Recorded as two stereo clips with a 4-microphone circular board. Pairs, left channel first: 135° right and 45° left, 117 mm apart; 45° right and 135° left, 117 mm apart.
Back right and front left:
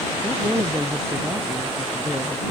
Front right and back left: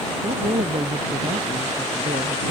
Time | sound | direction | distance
0.2 | a woman speaking | 115° left | ?